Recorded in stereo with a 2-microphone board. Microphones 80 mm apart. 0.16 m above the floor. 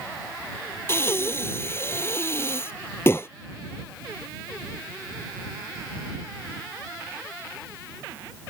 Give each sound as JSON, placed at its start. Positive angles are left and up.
{"t": 0.9, "sound": "breathing", "side_deg": 30}